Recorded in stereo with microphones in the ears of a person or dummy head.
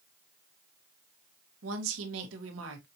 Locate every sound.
1.6 s a woman speaking: 80° right, 1.5 m